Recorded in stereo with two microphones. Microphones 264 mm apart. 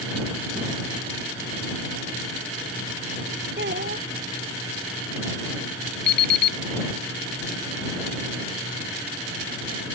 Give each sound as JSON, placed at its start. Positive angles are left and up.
{"t": 3.6, "sound": "a child speaking", "side_deg": -45}
{"t": 6.1, "sound": "an alarm clock", "side_deg": 45}